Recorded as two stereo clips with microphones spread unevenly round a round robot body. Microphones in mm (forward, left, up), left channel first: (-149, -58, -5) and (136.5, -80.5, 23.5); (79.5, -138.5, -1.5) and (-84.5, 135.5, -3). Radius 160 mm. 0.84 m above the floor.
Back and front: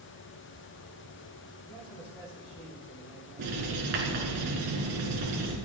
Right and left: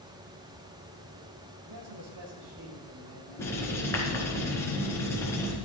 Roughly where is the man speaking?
Left.